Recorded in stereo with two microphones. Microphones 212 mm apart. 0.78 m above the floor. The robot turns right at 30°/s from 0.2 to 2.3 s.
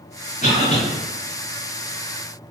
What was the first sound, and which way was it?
A cough, 35° left (ahead or behind).